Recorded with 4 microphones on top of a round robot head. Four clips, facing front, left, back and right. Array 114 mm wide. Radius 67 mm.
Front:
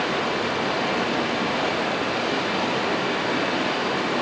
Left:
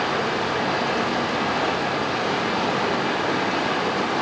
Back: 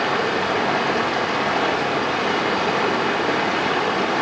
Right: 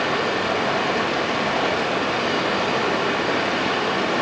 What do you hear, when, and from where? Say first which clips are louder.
0.0 s running water: right 1 dB, back 3 dB; 170° left, 1.7 m